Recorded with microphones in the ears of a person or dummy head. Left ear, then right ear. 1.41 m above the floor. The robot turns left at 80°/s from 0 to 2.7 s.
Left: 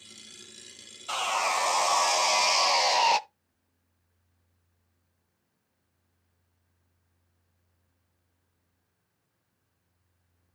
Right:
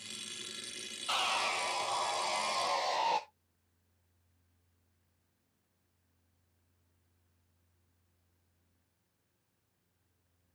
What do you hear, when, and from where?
1.1 s sawing: 175° left, 0.7 m; by 3.2 s 45° left, 0.7 m